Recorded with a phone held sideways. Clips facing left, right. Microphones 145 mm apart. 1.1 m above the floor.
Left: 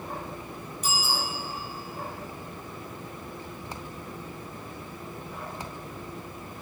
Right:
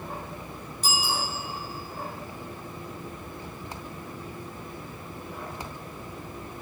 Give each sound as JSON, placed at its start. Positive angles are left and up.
{"t": 0.8, "sound": "a bicycle bell", "side_deg": -30, "distance_m": 7.0}